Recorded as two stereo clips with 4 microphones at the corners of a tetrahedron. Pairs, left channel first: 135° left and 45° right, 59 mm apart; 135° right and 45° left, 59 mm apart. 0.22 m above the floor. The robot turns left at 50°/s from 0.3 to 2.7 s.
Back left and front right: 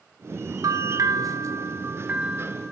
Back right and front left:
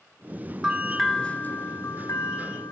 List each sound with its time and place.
0.6 s a bell: 35° right, 0.5 m; by 2.7 s 135° right, 0.5 m